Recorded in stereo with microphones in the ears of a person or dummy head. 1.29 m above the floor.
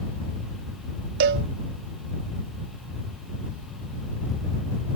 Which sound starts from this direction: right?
A cowbell, at 1.2 s.